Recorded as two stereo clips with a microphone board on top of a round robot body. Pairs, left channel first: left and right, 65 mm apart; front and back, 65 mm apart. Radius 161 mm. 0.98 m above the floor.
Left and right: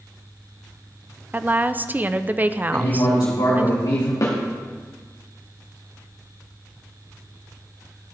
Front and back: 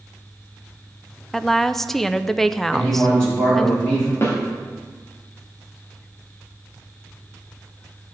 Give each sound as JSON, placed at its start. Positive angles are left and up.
{"t": 1.3, "sound": "a woman speaking", "azimuth_deg": -80, "distance_m": 0.7}
{"t": 2.7, "sound": "a man speaking", "azimuth_deg": 75, "distance_m": 2.5}
{"t": 4.2, "sound": "a snare drum", "azimuth_deg": 50, "distance_m": 2.0}